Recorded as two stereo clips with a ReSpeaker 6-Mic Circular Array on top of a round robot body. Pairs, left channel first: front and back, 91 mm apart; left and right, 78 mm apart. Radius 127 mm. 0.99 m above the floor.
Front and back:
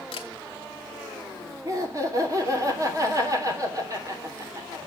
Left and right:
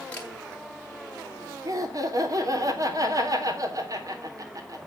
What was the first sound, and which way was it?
A camera shutter, 15° left.